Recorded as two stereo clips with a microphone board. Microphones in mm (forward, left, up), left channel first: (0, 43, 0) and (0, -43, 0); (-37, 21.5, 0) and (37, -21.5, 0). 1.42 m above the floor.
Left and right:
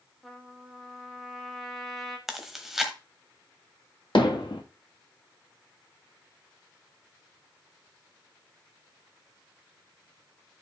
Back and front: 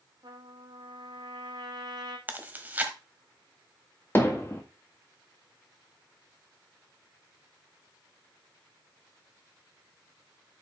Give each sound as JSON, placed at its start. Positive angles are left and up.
{"t": 0.2, "sound": "a trumpet", "azimuth_deg": 0, "distance_m": 1.8}
{"t": 2.3, "sound": "chewing", "azimuth_deg": -10, "distance_m": 1.3}
{"t": 4.2, "sound": "hammering", "azimuth_deg": 90, "distance_m": 1.7}